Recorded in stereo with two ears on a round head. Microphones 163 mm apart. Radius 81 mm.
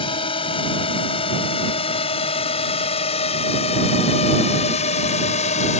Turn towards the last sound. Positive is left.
turn(degrees=40)  # may be behind; listen again after turning